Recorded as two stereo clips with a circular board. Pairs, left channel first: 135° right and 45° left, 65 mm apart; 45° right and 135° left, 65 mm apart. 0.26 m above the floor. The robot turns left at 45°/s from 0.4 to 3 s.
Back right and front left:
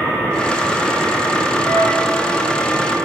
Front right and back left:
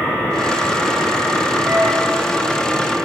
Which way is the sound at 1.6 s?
150° right.